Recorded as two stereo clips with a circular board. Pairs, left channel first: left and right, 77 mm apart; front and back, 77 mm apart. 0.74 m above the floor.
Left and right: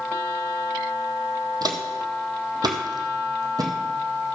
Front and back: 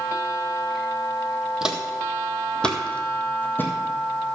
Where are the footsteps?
100° right, 1.4 m; by 3.7 s 60° right, 1.8 m.